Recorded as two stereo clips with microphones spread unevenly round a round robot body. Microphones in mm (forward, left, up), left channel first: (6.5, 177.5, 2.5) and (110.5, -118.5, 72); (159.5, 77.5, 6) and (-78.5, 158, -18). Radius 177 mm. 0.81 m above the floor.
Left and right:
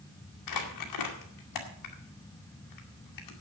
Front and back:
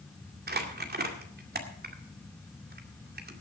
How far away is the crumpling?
About 2 m.